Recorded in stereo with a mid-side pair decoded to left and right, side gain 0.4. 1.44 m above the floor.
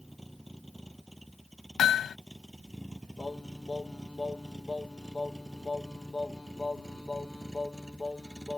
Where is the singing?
20° left.